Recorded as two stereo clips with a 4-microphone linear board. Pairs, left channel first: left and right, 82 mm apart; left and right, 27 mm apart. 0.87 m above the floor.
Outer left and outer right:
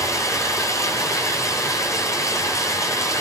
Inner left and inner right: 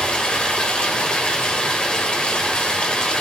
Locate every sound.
0.0 s running water: 35° left (ahead or behind), 3.5 m